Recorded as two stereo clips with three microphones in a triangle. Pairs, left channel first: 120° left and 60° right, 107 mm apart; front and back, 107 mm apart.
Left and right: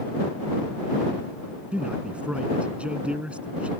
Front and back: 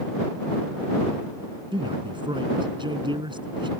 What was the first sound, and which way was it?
A man speaking, 140° right.